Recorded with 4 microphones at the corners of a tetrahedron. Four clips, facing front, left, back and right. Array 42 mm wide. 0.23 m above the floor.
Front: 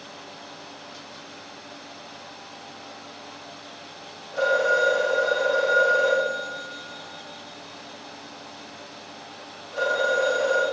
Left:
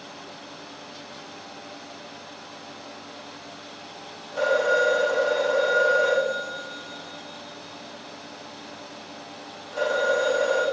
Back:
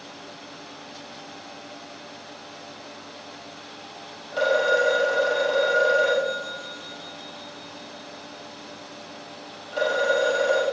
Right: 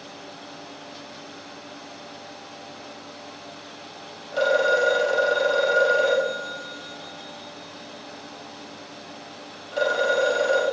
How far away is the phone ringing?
About 4 m.